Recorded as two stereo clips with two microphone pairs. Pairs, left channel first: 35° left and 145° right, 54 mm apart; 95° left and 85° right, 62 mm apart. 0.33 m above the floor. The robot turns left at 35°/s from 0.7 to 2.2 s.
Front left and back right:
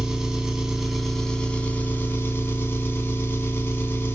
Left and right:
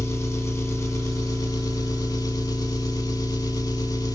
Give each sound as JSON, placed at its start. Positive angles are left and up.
{"t": 0.0, "sound": "an engine running", "azimuth_deg": 135, "distance_m": 0.7}